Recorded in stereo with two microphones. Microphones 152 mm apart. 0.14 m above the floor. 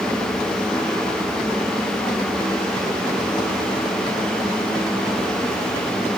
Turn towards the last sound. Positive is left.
No sound to turn to.